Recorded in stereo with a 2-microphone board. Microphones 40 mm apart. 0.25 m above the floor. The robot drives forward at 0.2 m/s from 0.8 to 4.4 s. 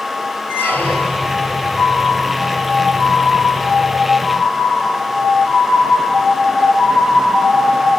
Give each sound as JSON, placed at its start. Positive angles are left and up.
{"t": 0.5, "sound": "a squeak", "side_deg": 55, "distance_m": 1.7}